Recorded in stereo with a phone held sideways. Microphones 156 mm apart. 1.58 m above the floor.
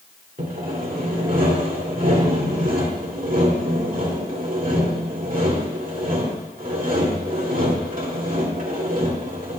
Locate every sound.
0.4 s sawing: 60° right (ahead or behind), 2.5 m